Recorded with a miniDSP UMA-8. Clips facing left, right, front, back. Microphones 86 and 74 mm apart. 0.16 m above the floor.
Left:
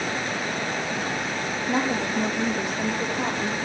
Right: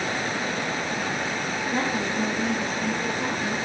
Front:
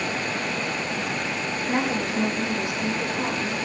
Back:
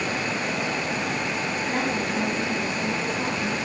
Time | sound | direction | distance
1.7 | a woman speaking | 70° left | 7 m